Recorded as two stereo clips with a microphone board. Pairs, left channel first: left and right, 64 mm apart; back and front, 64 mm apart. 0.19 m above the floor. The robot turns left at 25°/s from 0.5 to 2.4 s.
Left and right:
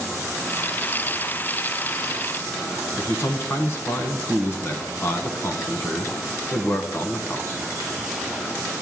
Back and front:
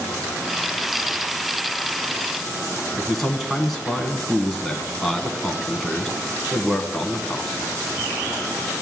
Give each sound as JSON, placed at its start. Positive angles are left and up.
{"t": 3.0, "sound": "a man speaking", "azimuth_deg": 95, "distance_m": 1.4}